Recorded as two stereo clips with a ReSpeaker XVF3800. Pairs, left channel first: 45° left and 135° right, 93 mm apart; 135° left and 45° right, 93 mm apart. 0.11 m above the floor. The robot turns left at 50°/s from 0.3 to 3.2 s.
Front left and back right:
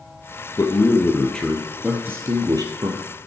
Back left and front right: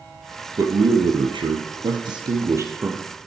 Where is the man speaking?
5° left, 2 m; by 3.0 s 120° right, 2 m.